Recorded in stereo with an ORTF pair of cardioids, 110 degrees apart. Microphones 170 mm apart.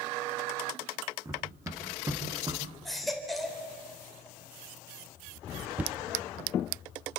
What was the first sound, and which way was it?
Running footsteps, 20° right.